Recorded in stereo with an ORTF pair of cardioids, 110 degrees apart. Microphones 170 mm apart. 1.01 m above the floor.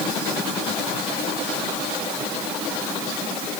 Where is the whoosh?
I don't hear a whoosh.